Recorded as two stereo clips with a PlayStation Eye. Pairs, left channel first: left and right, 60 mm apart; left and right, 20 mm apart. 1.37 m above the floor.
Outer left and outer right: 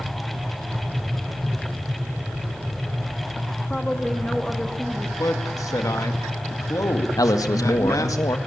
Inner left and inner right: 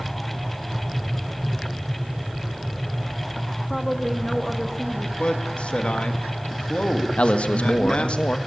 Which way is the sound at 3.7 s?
10° left (ahead or behind).